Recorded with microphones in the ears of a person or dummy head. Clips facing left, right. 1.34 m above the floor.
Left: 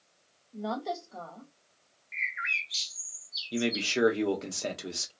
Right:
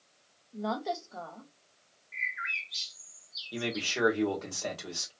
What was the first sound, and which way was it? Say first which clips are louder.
A woman speaking: even; 5° right (ahead or behind).